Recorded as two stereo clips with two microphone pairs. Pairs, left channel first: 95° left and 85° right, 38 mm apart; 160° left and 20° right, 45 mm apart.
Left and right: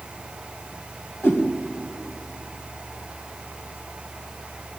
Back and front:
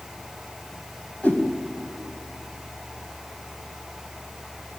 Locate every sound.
1.2 s a whoosh: 105° left, 2.5 m